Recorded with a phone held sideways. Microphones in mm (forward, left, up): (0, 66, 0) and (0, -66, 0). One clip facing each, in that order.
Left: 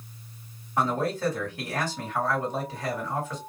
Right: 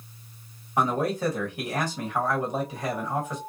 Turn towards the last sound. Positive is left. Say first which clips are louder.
# right 1 dB
turn(degrees=-15)  # may be behind; listen again after turning